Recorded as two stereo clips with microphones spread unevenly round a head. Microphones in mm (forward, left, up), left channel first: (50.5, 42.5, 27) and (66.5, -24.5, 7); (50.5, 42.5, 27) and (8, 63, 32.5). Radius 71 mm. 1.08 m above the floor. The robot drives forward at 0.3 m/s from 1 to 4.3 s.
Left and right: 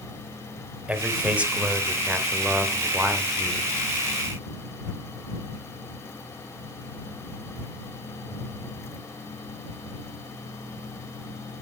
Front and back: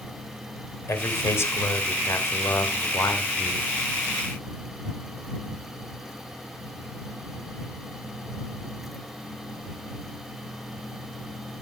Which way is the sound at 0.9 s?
5° right.